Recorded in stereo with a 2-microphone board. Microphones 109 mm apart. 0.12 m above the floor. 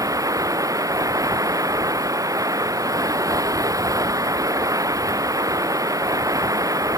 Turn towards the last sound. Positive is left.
turn(degrees=-30)  # may be behind; listen again after turning